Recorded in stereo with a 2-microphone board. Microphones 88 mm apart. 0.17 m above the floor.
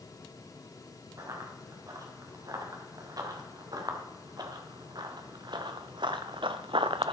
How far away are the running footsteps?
About 3.5 m.